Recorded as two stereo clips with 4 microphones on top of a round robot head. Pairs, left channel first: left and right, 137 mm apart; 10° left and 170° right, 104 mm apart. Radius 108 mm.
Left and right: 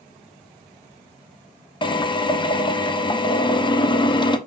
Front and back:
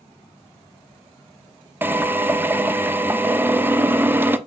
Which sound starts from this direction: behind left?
A drill, at 1.8 s.